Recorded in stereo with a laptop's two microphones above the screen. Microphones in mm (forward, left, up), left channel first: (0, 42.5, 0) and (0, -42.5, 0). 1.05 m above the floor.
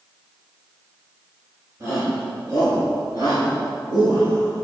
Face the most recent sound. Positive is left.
turn(degrees=-75)  # may be behind; listen again after turning